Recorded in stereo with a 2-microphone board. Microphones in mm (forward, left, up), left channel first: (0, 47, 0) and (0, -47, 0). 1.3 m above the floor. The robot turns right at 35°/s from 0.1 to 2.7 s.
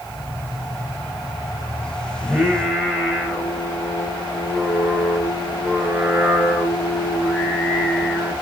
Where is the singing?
15° right (ahead or behind), 6 m; by 8.3 s 5° left (ahead or behind), 6 m.